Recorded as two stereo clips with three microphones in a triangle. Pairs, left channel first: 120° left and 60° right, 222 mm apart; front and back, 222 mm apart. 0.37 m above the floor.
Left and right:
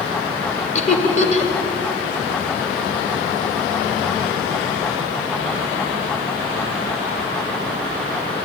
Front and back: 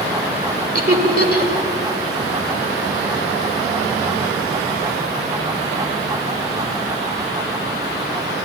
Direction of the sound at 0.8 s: 160° left.